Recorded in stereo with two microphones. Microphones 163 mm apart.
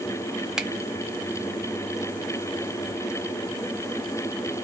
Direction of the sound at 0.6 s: 5° right (ahead or behind).